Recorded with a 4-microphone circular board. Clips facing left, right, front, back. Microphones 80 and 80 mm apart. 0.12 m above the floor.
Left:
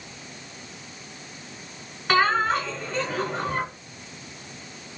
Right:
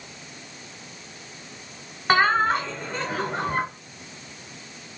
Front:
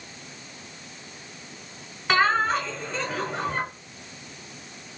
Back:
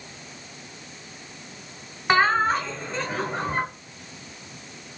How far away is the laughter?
About 1.2 m.